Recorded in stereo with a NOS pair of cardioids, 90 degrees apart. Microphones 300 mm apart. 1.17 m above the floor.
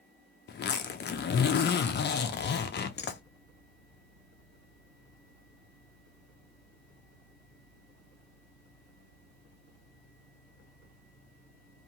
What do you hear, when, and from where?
0.5 s a zipper: 35° left, 0.5 m